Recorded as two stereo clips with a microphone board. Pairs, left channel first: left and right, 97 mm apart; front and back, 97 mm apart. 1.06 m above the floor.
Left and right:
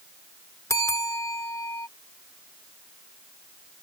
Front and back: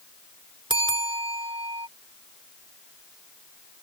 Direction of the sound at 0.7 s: 150° left.